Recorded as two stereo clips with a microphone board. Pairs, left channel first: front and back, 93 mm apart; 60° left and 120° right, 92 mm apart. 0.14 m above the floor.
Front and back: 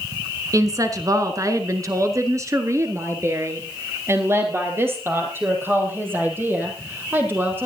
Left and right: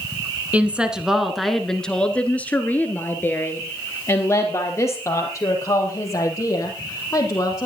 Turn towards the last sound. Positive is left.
turn(degrees=110)